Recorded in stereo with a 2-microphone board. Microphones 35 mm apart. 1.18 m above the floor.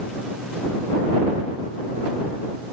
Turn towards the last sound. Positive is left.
No sound to turn to.